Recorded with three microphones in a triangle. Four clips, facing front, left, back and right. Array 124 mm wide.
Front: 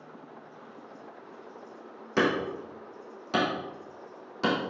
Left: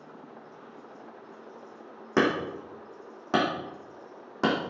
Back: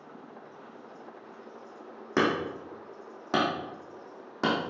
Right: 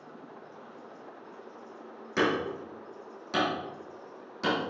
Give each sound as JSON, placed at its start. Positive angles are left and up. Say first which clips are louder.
{"t": 2.2, "sound": "hammering", "louder": "left 2 dB, even", "azimuth_deg": 120, "distance_m": 4.0}